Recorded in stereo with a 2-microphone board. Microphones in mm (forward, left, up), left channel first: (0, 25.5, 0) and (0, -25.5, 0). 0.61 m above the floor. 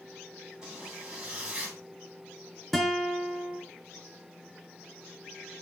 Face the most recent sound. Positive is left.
turn(degrees=0)  # may be behind; listen again after turning